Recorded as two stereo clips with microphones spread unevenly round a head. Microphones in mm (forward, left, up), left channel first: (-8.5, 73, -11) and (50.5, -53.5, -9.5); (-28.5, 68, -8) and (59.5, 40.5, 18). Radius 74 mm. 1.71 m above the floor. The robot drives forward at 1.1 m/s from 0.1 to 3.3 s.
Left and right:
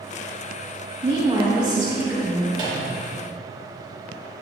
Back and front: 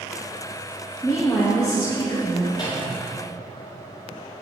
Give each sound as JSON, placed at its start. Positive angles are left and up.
{"t": 1.0, "sound": "a woman speaking", "azimuth_deg": -120, "distance_m": 1.3}
{"t": 2.5, "sound": "a microwave", "azimuth_deg": -125, "distance_m": 2.0}